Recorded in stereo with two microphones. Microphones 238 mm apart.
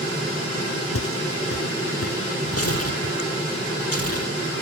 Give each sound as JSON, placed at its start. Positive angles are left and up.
{"t": 0.9, "sound": "footsteps", "side_deg": 65, "distance_m": 0.6}
{"t": 2.6, "sound": "tearing paper", "side_deg": 85, "distance_m": 2.5}